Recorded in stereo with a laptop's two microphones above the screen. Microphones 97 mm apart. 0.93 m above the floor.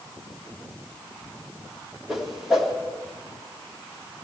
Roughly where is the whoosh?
Centre.